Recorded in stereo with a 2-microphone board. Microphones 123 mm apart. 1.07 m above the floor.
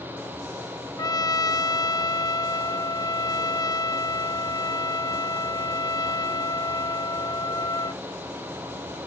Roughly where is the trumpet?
Left.